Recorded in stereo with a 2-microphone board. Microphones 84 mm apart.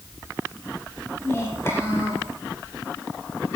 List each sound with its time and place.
1.2 s a child speaking: 30° left (ahead or behind), 7 m